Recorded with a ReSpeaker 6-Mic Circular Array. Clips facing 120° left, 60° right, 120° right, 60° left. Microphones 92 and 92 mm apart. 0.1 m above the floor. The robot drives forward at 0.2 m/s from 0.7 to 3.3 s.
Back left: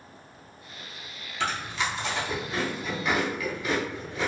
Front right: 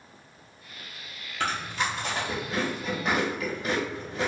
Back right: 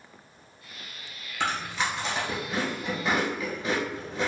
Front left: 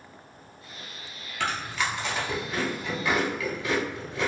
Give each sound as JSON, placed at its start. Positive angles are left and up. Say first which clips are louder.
{"t": 1.4, "sound": "chewing", "louder": "even, even", "azimuth_deg": -65, "distance_m": 1.3}